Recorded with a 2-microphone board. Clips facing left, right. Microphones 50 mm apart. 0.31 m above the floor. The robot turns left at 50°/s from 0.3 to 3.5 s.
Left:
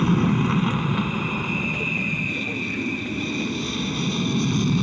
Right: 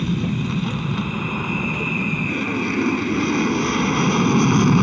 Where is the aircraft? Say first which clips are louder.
Left 3 dB; 45° left; by 4.8 s 115° right.